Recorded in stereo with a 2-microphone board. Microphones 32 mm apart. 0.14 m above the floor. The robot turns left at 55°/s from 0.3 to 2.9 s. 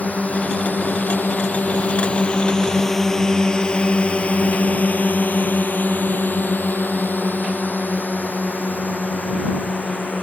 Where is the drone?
55° left (ahead or behind); by 10.2 s 65° left (ahead or behind).